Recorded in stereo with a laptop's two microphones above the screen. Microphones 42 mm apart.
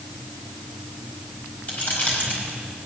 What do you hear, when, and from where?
1.7 s keys jangling: 40° left (ahead or behind), 5 m